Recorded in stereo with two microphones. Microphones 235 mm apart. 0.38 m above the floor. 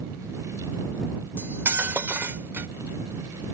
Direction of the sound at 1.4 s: 10° right (ahead or behind).